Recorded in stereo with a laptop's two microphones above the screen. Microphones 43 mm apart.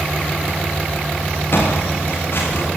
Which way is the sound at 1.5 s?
55° left (ahead or behind).